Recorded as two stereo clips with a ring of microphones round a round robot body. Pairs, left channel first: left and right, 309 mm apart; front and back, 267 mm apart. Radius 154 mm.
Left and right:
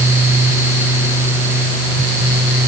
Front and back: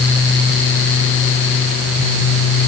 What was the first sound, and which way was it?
Only background noise.